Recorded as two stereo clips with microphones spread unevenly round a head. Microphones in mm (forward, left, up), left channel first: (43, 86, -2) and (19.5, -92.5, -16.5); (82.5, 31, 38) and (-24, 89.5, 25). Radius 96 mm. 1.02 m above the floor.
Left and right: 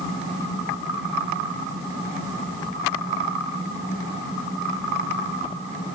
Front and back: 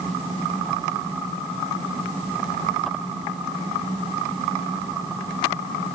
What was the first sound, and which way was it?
Only background noise.